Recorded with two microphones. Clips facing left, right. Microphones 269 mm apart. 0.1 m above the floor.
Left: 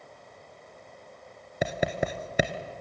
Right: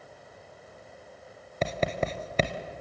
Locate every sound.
1.6 s writing: 10° left (ahead or behind), 1.2 m